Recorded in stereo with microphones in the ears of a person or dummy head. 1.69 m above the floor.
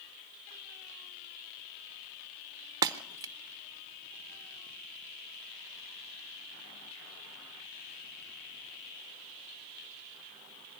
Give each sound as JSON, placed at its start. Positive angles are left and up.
{"t": 2.8, "sound": "breaking glass", "side_deg": -20, "distance_m": 0.8}